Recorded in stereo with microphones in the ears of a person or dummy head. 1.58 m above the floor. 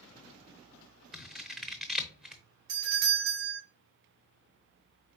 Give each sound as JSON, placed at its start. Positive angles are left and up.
{"t": 1.1, "sound": "scissors", "side_deg": 5, "distance_m": 0.7}
{"t": 2.7, "sound": "a doorbell", "side_deg": -75, "distance_m": 1.8}